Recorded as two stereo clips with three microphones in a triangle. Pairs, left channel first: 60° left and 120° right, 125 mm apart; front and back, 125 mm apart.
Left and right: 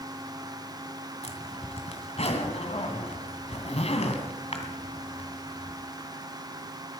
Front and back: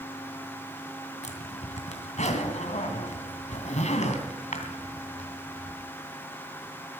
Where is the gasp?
No gasp in this recording.